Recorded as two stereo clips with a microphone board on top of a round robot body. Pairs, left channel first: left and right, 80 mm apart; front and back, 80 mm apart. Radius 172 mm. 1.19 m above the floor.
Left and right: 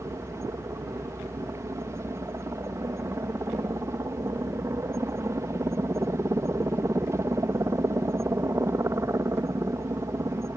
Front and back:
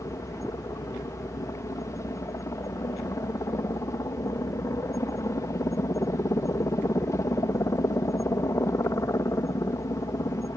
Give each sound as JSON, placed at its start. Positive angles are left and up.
{"t": 0.0, "sound": "a helicopter", "azimuth_deg": -45}